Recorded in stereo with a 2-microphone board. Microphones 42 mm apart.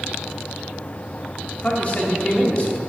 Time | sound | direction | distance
1.6 | a man speaking | 35° left (ahead or behind) | 1.8 m